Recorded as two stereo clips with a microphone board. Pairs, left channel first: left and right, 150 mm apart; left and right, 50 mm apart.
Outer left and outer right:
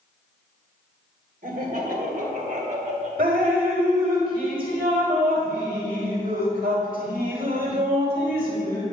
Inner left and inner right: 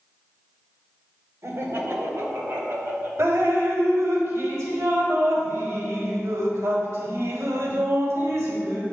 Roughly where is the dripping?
Right.